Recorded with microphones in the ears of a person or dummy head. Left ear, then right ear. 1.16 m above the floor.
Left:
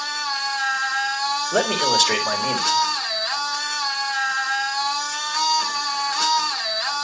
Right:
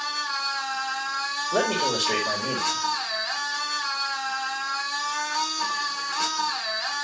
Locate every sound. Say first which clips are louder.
0.0 s a machine running: left 3 dB; 5° left (ahead or behind), 2.5 m
1.5 s a man speaking: left 4 dB; 35° left (ahead or behind), 3.5 m